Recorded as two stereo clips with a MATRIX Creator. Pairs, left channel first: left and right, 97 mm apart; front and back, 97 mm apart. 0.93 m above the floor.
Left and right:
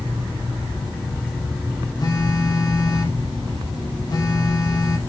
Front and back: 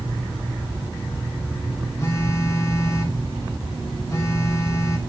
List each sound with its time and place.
2.0 s a phone buzzing: 50° left, 1.4 m